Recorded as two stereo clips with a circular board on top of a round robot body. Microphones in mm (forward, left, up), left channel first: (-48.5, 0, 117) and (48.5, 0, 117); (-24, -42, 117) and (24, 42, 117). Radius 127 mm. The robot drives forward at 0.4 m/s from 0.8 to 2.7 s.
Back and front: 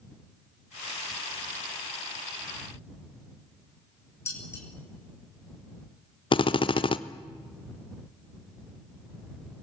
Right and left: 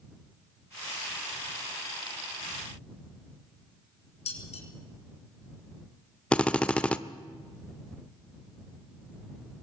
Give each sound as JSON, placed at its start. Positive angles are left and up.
{"t": 4.3, "sound": "dishes clattering", "azimuth_deg": -115, "distance_m": 6.0}
{"t": 6.3, "sound": "a drill", "azimuth_deg": 165, "distance_m": 1.0}